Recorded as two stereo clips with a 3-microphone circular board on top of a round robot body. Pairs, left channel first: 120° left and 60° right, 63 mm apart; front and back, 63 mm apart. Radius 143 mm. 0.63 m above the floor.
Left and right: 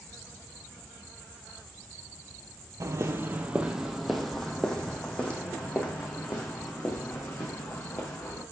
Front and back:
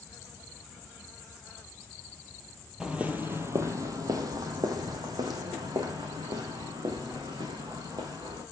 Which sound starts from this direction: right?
Footsteps, at 2.8 s.